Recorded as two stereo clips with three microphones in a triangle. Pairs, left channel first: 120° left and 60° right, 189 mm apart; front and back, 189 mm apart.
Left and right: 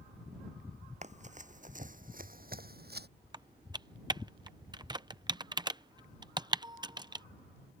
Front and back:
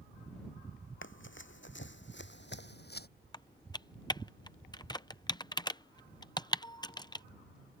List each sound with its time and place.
1.0 s running footsteps: 5° right; by 3.1 s 30° right
3.3 s typing on a keyboard: 30° right